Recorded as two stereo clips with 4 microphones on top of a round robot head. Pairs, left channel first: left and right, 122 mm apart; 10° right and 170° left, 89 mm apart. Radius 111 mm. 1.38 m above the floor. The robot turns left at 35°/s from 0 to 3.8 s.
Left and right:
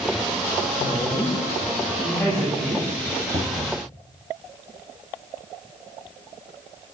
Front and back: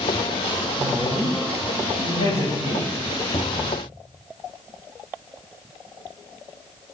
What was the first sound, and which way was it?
A woman speaking, 60° left.